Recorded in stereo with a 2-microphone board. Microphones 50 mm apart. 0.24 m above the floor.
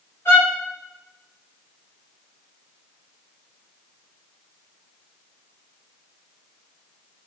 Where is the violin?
60° left (ahead or behind), 4.5 m.